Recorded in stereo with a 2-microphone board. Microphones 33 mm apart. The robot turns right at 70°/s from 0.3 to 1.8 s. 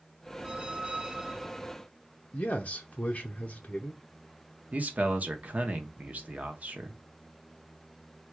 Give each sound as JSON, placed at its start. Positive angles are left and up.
{"t": 0.4, "sound": "a squeak", "side_deg": -25, "distance_m": 0.5}
{"t": 2.3, "sound": "a man speaking", "side_deg": 40, "distance_m": 0.6}
{"t": 4.7, "sound": "a man speaking", "side_deg": -50, "distance_m": 0.9}